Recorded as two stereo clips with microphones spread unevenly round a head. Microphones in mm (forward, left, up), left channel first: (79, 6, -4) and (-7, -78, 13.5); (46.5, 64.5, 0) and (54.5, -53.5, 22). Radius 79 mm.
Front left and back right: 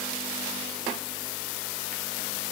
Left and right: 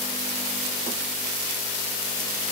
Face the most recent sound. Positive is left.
No sound to turn to.